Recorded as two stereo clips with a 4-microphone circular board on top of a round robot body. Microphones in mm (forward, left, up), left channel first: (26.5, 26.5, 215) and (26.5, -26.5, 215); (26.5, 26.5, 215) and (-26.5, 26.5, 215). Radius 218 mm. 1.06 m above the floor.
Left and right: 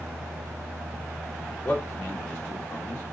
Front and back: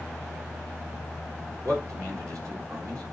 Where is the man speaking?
150° left, 5 m.